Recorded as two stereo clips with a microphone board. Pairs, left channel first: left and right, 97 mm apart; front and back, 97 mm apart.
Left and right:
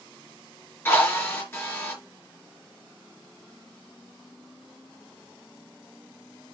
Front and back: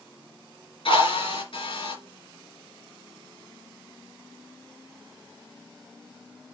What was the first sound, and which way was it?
A drill, 25° left.